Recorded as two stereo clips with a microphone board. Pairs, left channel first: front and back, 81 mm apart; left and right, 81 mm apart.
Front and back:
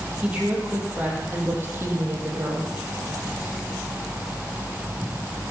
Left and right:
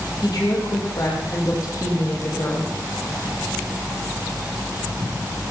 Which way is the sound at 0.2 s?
105° left.